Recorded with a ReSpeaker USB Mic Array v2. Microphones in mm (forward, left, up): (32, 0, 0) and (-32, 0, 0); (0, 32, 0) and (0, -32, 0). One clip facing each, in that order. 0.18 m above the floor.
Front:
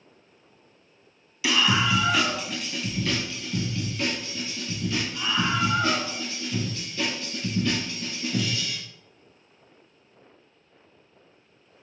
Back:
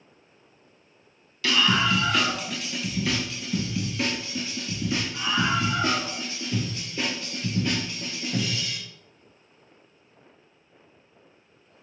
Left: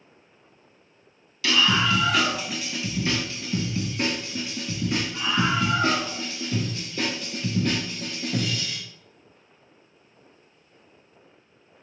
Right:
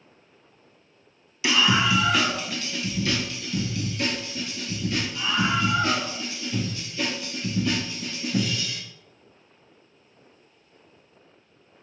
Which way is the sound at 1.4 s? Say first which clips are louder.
Even, even; 55° right.